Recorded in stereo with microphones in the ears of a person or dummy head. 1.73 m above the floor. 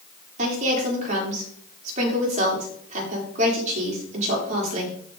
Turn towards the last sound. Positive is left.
turn(degrees=-40)  # may be behind; listen again after turning